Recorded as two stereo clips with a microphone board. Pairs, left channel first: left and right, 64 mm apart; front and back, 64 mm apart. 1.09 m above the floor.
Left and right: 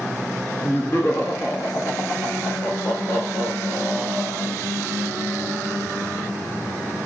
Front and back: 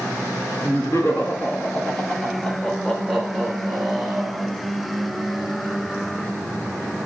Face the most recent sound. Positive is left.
turn(degrees=105)